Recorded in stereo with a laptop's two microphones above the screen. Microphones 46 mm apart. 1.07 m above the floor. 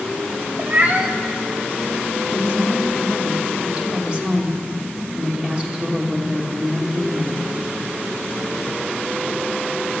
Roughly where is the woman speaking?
Right.